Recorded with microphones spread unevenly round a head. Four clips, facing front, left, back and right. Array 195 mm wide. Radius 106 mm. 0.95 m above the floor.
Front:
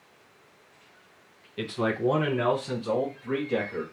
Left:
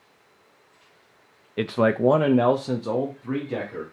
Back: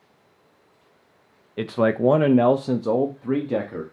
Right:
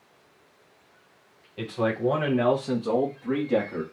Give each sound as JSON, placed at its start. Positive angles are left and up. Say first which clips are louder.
{"t": 1.6, "sound": "a man speaking", "louder": "left 5 dB, back 7 dB", "azimuth_deg": 100, "distance_m": 0.6}